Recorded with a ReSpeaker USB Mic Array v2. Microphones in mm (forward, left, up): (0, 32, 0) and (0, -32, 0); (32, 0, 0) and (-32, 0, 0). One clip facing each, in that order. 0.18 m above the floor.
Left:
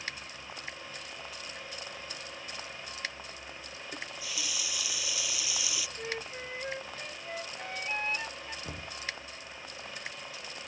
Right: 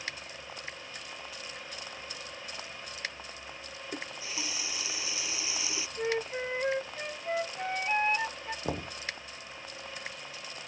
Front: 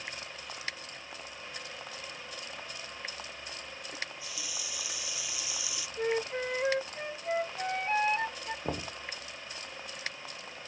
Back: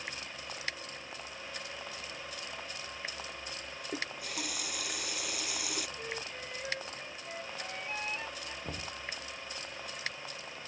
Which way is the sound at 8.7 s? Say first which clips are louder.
Right 7 dB, front 7 dB; 55° right.